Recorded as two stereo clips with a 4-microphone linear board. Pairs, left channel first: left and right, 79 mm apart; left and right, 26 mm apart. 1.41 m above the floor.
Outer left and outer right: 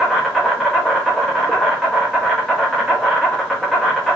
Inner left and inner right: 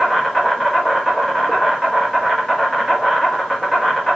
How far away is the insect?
About 0.8 m.